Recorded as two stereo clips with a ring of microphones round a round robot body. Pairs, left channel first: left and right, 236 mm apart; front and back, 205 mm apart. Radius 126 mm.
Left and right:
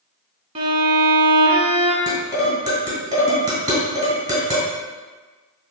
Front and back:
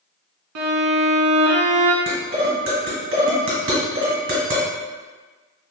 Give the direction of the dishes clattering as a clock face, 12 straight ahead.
5 o'clock.